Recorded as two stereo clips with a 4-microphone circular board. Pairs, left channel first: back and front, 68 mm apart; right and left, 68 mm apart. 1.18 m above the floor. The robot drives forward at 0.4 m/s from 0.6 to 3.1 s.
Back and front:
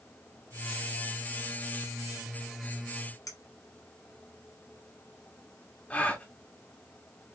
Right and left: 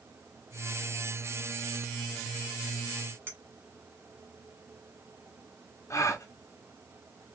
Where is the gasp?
115° right, 1.0 m.